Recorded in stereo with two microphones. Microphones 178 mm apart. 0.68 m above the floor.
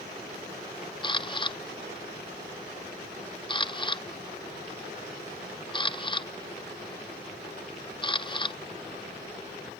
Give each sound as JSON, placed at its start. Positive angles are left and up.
{"t": 1.0, "sound": "a camera shutter", "side_deg": 30, "distance_m": 0.6}